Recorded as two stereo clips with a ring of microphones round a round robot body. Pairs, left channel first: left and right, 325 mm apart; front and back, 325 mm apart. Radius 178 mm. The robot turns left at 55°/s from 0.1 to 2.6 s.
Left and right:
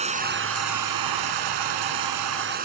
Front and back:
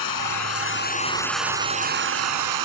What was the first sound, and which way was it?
Running water, 20° right.